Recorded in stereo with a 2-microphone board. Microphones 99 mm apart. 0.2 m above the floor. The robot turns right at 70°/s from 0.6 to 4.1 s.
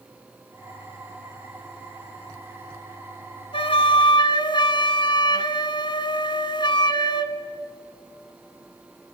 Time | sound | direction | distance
3.5 | a flute | 80° left | 0.8 m